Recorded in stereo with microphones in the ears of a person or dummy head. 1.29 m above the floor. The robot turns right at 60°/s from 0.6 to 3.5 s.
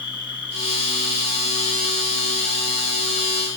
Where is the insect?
25° left, 3 m; by 3.6 s 160° right, 3 m.